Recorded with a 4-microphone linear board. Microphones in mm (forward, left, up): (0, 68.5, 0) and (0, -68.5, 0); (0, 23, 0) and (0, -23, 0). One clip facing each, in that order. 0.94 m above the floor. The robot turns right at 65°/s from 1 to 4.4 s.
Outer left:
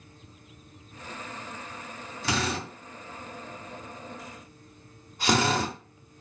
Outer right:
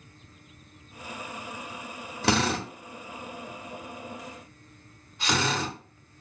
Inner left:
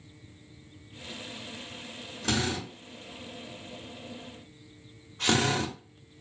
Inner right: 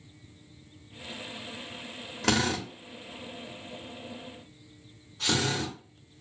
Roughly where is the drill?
Right.